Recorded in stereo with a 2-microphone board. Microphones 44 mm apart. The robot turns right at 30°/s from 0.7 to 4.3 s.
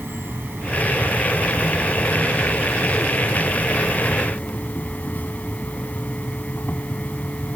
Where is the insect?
60° right; by 7.6 s 50° left.